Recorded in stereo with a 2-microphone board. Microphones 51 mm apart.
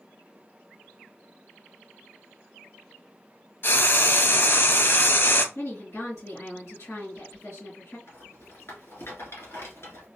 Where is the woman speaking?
65° left (ahead or behind), 2.5 m.